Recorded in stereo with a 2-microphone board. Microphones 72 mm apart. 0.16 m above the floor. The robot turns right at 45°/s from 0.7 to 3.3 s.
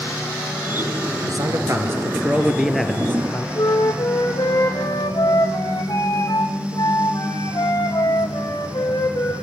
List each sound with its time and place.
1.3 s a man speaking: 70° right, 3 m; by 3.5 s 25° left, 3 m
3.5 s a flute: 55° left (ahead or behind), 4.5 m